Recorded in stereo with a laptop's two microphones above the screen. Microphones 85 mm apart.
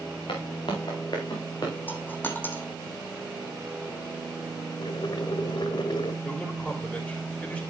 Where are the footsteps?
70° left (ahead or behind), 4 m; by 1.8 s 45° left (ahead or behind), 4 m.